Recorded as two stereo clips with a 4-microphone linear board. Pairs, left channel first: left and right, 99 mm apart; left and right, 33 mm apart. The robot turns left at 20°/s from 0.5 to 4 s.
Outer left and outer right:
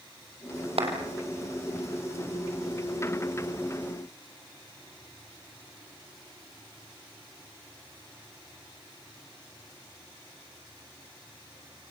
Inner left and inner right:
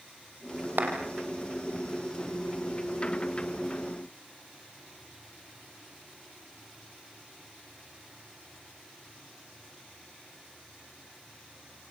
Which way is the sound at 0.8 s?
75° right (ahead or behind).